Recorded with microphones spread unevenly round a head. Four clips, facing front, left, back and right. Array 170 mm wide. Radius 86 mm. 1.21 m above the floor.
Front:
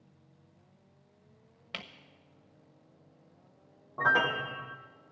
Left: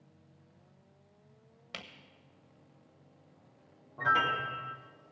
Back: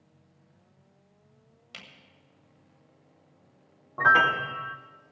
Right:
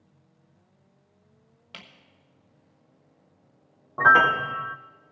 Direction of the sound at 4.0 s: 100° right.